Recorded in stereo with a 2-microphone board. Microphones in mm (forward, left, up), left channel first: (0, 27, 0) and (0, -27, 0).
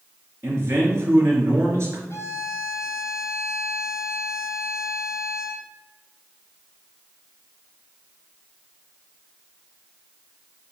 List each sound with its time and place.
0.4 s a man speaking: 55° right (ahead or behind), 2 m
2.1 s a violin: 55° left (ahead or behind), 1.5 m